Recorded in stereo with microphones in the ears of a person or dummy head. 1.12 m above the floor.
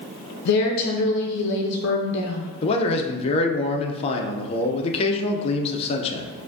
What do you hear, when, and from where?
0.5 s a woman speaking: 60° left (ahead or behind), 0.5 m
2.6 s a man speaking: 30° left (ahead or behind), 0.5 m